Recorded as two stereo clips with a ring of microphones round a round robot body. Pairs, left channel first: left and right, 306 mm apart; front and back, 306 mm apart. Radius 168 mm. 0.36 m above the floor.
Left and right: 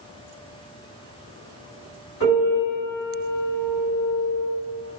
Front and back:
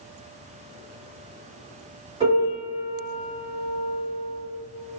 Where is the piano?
115° left, 1.9 m.